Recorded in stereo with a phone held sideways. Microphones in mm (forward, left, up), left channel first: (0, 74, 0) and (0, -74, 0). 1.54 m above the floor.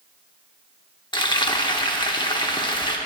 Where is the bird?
No bird in this recording.